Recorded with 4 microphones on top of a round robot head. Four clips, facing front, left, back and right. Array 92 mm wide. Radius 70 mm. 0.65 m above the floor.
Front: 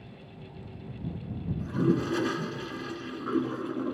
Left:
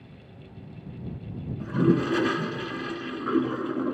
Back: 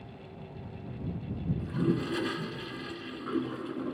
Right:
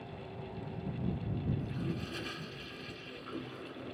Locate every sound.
1.6 s a toilet flushing: 75° left